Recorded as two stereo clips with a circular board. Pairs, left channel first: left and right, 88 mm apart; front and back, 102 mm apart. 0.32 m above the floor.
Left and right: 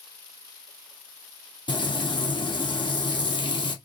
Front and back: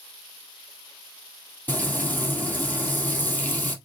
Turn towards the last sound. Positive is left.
turn(degrees=70)